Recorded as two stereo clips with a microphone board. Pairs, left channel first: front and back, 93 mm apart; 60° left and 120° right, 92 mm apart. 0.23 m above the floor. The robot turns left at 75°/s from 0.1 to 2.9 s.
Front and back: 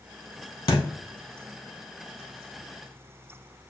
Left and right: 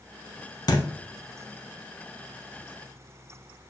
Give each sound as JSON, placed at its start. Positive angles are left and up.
{"t": 0.7, "sound": "a thud", "azimuth_deg": 25, "distance_m": 0.6}